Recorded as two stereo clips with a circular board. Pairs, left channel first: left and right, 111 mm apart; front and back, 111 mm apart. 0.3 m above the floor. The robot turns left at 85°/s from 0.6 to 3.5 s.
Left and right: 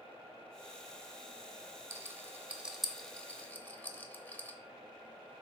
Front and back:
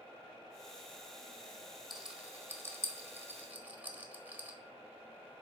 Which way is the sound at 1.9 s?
90° right.